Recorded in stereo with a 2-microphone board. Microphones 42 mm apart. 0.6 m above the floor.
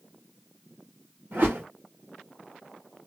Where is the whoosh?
60° right (ahead or behind), 2 m.